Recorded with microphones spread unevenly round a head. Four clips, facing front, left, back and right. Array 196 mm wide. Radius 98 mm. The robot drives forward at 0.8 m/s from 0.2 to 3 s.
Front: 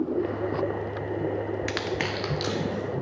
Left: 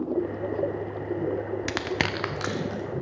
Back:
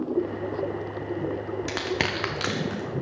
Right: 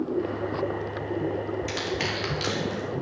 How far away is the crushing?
About 0.5 m.